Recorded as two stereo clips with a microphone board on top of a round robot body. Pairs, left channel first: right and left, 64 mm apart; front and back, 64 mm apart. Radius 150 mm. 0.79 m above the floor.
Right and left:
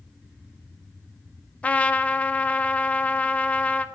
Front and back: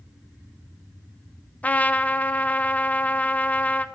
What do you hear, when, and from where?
1.6 s a trumpet: 40° right, 0.6 m